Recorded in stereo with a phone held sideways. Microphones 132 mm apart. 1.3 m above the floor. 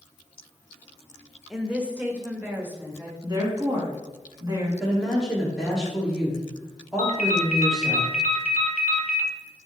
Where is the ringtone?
70° left (ahead or behind), 0.9 m.